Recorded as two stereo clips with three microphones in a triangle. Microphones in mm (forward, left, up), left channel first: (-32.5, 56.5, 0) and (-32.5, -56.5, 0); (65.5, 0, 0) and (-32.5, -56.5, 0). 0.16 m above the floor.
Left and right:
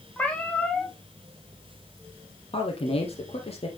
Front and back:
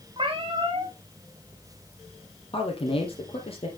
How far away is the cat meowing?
About 2.5 m.